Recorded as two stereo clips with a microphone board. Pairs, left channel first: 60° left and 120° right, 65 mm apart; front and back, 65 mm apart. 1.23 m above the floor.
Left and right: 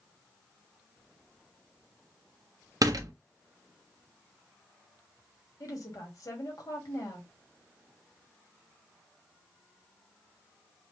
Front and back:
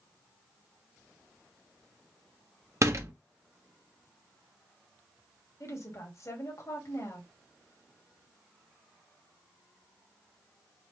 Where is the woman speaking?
40° left, 2.5 m.